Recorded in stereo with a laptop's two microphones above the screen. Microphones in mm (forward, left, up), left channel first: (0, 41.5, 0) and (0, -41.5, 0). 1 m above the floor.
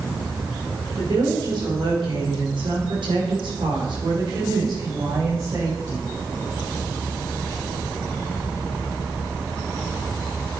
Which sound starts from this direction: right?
A woman speaking, at 0.9 s.